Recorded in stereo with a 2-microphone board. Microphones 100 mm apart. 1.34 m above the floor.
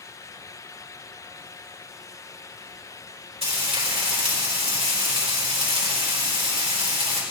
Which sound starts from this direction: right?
Frying, at 3.4 s.